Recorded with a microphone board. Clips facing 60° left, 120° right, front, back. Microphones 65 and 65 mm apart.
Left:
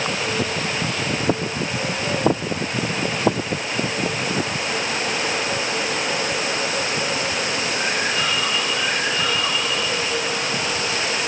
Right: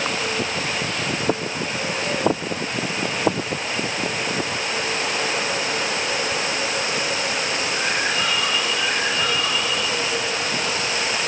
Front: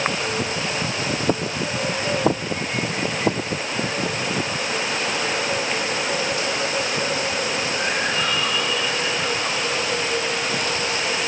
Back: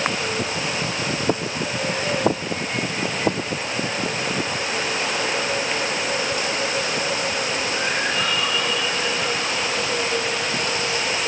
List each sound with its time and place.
Only background noise.